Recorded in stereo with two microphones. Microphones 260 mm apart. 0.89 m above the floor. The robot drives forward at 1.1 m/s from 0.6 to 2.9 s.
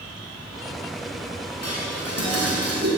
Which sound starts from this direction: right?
Dishes clattering, at 1.6 s.